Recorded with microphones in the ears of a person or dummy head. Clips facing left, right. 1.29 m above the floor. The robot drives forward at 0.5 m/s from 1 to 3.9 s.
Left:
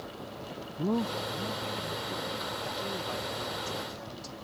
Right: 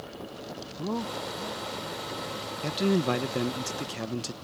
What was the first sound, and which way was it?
A man speaking, 15° left (ahead or behind).